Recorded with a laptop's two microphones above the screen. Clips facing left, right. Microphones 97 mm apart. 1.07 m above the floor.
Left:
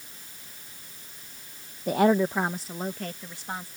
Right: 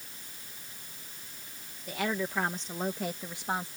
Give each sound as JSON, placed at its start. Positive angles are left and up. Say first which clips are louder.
{"t": 1.9, "sound": "a woman speaking", "louder": "left 11 dB", "side_deg": 50}